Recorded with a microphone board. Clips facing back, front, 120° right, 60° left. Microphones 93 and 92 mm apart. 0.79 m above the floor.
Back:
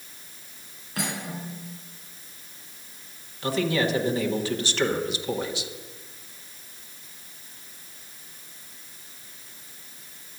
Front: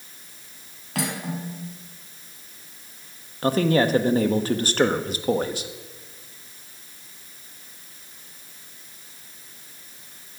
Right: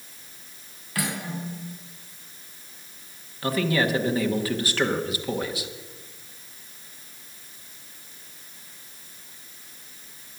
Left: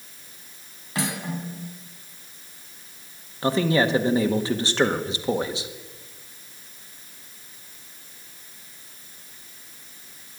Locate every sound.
0.9 s cutlery clinking: 10° right, 4 m
3.4 s a man speaking: 5° left, 1.2 m